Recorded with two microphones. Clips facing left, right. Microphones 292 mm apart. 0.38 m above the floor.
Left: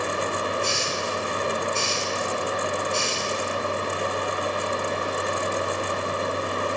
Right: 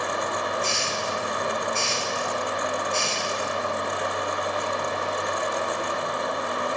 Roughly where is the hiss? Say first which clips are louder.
Left 2 dB; left.